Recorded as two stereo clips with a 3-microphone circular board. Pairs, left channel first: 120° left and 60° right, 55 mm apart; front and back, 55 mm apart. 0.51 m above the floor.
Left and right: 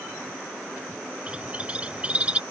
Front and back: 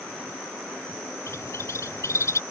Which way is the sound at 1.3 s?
5° left.